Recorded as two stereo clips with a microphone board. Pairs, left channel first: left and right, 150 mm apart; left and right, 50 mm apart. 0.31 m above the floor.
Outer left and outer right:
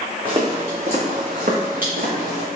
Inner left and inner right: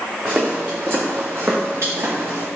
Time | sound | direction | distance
0.2 | footsteps | 35° right (ahead or behind) | 1.4 m